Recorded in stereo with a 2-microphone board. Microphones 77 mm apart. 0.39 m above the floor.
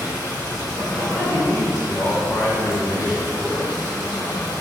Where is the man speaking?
20° left (ahead or behind), 0.8 m.